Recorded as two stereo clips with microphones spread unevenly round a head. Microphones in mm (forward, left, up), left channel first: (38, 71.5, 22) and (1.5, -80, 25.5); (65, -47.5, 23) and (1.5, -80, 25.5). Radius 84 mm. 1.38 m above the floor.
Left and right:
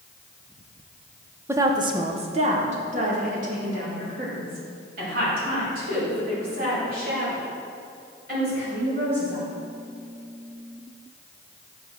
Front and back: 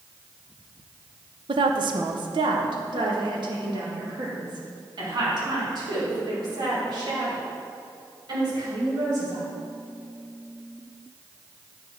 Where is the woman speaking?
Straight behind, 0.6 m; by 9.4 s 140° right, 6.5 m.